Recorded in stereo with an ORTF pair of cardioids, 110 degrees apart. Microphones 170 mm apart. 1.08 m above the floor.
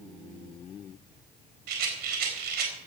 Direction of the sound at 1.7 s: 70° right.